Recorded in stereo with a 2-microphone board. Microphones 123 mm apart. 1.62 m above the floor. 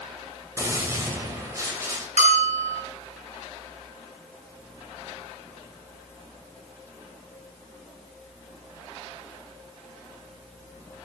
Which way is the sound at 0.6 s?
25° right (ahead or behind).